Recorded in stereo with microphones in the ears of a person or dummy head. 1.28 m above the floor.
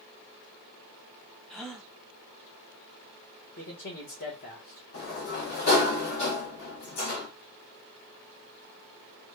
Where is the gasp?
5° left (ahead or behind), 0.8 m.